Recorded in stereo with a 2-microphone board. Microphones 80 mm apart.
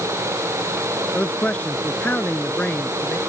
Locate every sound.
1.1 s a man speaking: 15° left (ahead or behind); by 3.2 s 20° left (ahead or behind)